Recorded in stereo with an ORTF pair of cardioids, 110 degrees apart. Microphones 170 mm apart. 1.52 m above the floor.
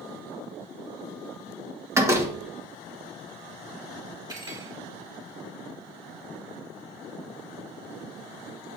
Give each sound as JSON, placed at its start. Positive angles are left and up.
{"t": 1.9, "sound": "a door slam", "azimuth_deg": -15, "distance_m": 1.7}
{"t": 4.3, "sound": "cutlery clinking", "azimuth_deg": -25, "distance_m": 3.5}